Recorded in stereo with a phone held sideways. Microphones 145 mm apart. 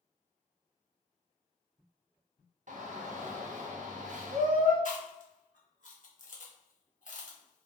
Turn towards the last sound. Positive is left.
turn(degrees=60)  # may be behind; listen again after turning